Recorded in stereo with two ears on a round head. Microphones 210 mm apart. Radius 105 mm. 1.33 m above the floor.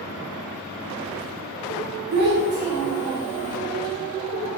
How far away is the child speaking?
About 0.9 m.